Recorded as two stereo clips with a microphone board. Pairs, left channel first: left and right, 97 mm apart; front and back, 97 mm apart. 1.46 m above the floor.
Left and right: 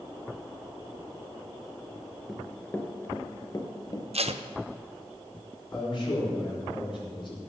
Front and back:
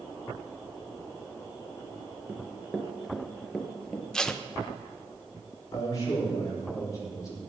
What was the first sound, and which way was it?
Running footsteps, 175° left.